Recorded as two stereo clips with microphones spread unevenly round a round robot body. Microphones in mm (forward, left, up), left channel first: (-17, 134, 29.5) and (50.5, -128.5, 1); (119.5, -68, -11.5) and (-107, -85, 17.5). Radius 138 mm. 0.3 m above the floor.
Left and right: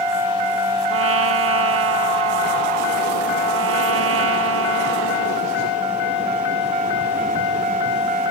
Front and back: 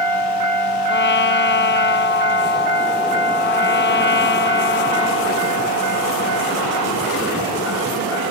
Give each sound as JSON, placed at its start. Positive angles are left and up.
{"t": 0.9, "sound": "a trumpet", "azimuth_deg": -35}